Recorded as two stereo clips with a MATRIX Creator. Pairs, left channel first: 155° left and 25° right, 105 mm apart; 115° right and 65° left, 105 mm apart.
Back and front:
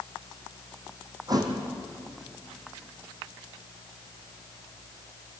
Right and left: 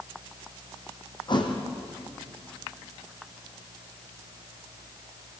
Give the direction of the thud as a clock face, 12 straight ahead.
2 o'clock.